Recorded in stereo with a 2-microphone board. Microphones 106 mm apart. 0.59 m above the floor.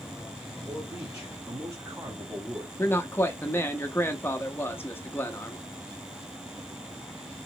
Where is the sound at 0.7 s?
30° right (ahead or behind), 1.3 m; by 2.7 s 15° right (ahead or behind), 1.1 m.